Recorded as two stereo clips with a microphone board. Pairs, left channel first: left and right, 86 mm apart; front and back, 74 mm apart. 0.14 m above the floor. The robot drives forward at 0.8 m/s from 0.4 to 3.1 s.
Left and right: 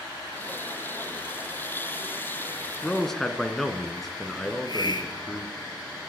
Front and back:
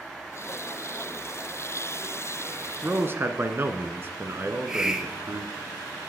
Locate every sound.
2.8 s a man speaking: 170° left, 1.0 m; by 5.5 s 175° left, 1.2 m
4.5 s a hiss: 100° left, 1.3 m